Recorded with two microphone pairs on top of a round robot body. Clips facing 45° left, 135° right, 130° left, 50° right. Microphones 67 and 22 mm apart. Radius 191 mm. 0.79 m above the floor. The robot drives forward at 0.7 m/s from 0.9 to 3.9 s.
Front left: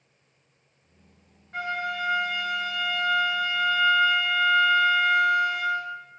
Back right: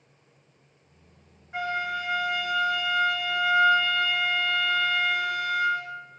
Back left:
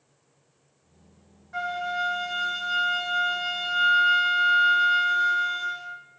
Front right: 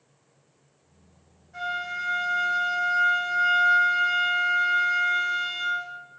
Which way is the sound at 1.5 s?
145° left.